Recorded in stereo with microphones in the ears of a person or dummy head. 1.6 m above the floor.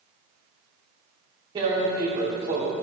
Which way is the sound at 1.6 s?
30° right (ahead or behind).